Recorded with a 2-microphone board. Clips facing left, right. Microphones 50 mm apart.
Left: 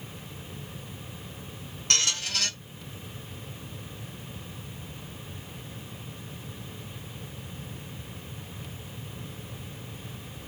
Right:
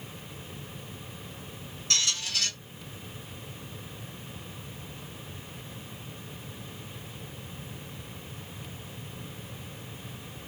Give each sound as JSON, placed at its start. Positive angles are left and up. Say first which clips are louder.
{"t": 1.9, "sound": "a squeak", "louder": "left 2 dB", "side_deg": 65, "distance_m": 0.9}